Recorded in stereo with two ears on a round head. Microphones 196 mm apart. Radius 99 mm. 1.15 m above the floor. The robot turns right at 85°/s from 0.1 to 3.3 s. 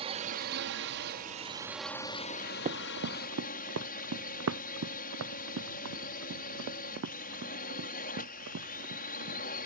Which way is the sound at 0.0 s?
145° right.